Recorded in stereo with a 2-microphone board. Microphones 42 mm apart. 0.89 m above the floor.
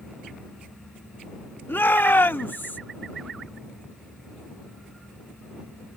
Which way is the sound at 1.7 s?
60° left (ahead or behind).